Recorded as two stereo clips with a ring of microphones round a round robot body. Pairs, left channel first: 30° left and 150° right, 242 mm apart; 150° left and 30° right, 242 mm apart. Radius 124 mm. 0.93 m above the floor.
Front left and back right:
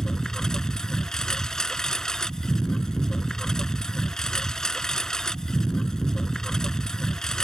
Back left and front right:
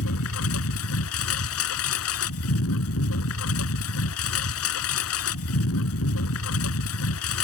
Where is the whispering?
I don't hear whispering.